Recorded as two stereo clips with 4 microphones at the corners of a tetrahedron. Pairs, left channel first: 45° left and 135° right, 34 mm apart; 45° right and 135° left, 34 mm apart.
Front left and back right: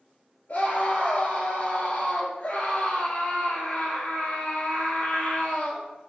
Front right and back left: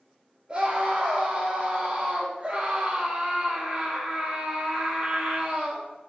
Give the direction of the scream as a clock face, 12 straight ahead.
9 o'clock.